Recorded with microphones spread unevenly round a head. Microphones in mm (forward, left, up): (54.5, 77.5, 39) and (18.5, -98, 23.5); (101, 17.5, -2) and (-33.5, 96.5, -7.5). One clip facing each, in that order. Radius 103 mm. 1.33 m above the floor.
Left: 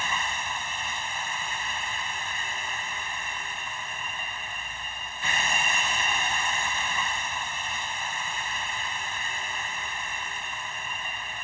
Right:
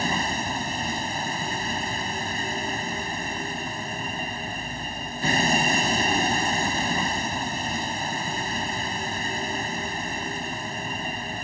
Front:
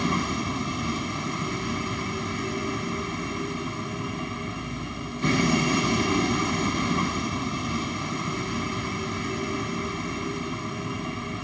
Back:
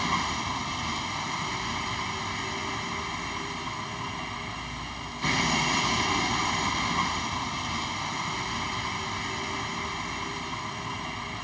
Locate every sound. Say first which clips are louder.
0.0 s a vehicle: right 7 dB, front 5 dB; 45° right